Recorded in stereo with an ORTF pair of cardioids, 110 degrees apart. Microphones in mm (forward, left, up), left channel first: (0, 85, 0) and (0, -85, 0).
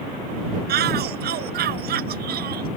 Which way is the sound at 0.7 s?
70° right.